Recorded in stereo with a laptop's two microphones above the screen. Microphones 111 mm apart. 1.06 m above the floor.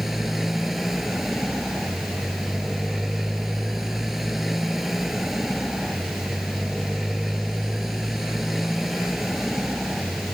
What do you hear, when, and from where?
0.0 s a motorcycle: centre (ahead or behind)